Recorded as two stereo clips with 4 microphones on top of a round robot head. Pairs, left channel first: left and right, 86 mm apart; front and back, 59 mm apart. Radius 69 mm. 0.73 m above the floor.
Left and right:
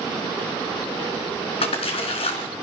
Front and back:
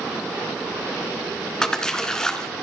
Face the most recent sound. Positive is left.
turn(degrees=80)